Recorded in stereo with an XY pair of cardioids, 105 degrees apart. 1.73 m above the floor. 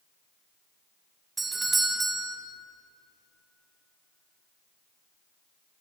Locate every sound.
1.4 s a doorbell: 20° right, 1.0 m